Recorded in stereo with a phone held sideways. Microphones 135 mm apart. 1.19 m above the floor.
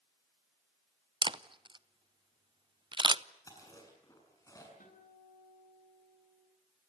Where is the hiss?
I don't hear a hiss.